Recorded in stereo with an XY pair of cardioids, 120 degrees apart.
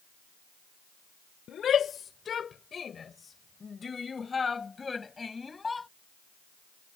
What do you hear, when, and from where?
1.5 s a shout: 50° left; by 5.9 s 20° left